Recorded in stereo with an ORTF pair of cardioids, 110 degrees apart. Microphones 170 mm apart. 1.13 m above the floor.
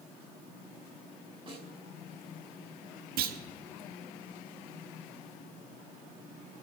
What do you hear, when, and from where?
1.5 s a snare drum: 35° right, 4.5 m
3.2 s a clunk: 65° right, 1.2 m